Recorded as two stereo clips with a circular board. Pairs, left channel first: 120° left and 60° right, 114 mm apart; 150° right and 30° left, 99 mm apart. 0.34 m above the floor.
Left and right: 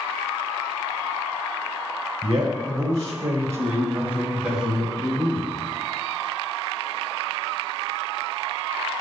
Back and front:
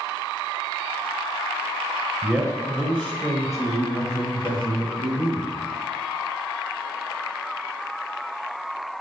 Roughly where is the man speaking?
Ahead right.